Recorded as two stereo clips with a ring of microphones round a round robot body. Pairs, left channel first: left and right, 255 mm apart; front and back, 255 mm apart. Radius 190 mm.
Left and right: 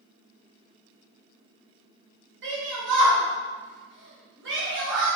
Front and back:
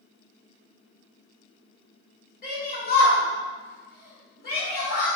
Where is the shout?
55° right, 1.5 m.